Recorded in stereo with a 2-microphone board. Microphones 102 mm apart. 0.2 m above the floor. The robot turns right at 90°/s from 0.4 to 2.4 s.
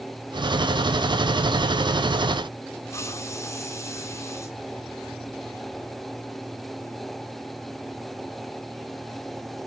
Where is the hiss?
30° left (ahead or behind), 2.5 m.